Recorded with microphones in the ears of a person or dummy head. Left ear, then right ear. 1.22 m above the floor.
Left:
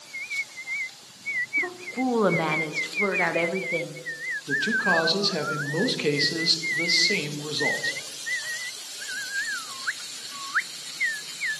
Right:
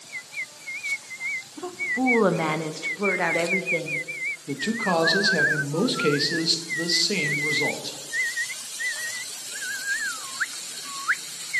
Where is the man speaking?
Centre (ahead or behind), 0.9 m.